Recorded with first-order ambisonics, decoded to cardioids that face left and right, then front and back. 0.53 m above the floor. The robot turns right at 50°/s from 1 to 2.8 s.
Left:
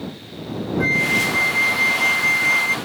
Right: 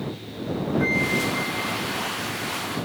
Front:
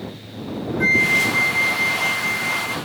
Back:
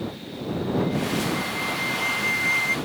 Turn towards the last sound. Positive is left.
turn(degrees=110)